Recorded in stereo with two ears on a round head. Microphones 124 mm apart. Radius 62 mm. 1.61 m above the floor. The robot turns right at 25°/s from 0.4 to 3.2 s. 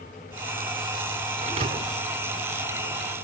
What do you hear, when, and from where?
1.4 s a thud: 45° right (ahead or behind); by 2.1 s 55° right (ahead or behind)